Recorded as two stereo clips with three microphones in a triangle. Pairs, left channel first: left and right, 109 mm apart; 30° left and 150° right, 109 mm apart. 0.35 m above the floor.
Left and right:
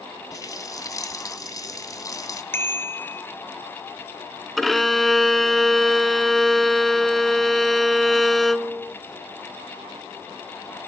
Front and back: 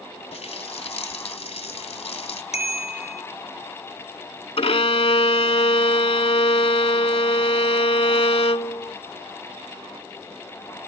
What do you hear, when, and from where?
0.3 s a running tap: 35° left, 2 m
2.5 s a bicycle bell: 20° left, 4 m
4.6 s a violin: straight ahead, 0.6 m